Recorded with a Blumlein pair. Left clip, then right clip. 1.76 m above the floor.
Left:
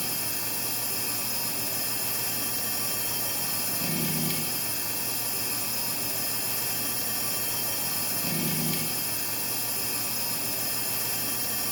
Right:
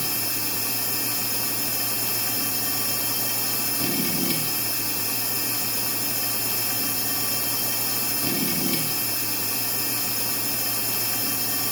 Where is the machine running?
15° right, 0.9 m.